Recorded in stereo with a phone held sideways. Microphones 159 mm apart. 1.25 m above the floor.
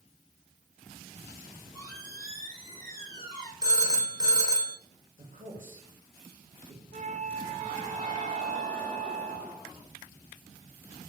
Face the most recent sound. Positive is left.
turn(degrees=-45)  # may be behind; listen again after turning